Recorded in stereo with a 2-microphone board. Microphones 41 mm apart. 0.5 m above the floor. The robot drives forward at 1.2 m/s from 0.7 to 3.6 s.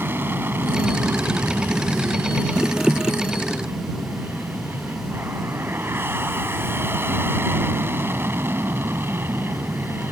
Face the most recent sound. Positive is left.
turn(degrees=-65)  # may be behind; listen again after turning